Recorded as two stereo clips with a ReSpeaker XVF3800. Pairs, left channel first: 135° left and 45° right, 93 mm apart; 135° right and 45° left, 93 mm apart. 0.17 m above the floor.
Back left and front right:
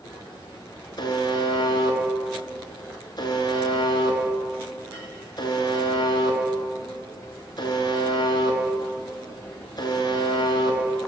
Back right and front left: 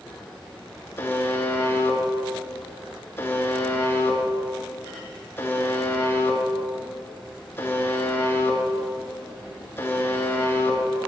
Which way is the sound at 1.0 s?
165° left.